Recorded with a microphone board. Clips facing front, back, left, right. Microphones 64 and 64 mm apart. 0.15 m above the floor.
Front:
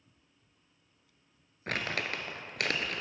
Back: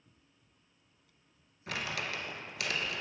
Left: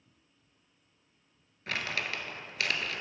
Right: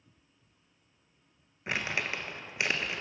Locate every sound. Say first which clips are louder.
1.7 s crumpling: front 3 dB, right 2 dB; 25° right, 0.7 m